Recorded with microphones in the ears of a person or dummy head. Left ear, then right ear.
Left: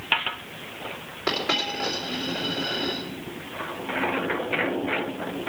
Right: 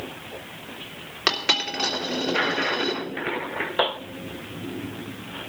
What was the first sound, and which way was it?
A dropped coin, 50° right (ahead or behind).